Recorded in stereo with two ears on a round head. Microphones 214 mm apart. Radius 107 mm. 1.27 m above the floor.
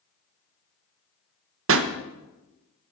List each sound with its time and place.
1.7 s a pop: 60° right (ahead or behind), 1.1 m